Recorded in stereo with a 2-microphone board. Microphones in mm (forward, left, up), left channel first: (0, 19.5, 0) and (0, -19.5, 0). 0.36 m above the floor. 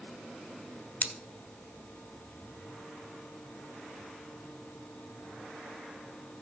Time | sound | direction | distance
1.0 | scissors | 50° left (ahead or behind) | 1.3 m